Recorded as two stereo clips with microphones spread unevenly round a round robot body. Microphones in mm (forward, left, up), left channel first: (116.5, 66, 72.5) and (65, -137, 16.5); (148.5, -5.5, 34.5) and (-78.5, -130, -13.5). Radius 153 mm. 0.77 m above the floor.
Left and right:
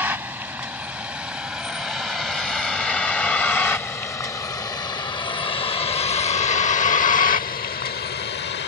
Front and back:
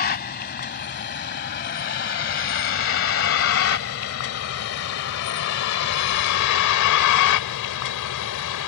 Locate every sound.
0.0 s a vehicle: 25° right; by 8.7 s 40° left